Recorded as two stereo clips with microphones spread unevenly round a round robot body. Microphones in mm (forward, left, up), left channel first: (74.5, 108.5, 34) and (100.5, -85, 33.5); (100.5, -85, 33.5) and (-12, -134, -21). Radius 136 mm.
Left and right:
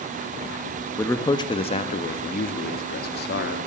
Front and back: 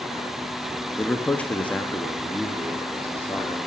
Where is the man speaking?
160° left, 0.9 m; by 3.6 s 115° left, 1.7 m.